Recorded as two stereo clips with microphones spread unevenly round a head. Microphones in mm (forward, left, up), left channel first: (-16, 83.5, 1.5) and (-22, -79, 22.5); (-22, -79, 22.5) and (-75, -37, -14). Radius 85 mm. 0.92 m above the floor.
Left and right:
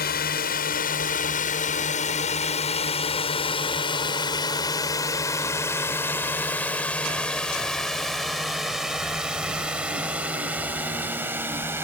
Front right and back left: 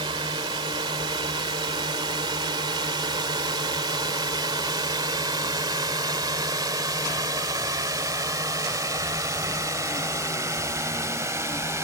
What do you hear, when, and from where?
0.0 s a drone: 120° left; by 11.8 s 170° right